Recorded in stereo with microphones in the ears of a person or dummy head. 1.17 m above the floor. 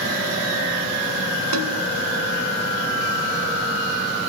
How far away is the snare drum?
About 3 m.